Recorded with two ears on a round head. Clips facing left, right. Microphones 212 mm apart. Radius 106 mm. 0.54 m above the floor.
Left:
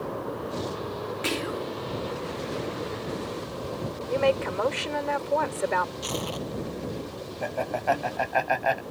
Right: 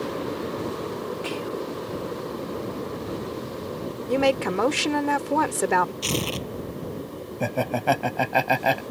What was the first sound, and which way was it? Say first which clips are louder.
Whispering: right 1 dB; 25° left (ahead or behind).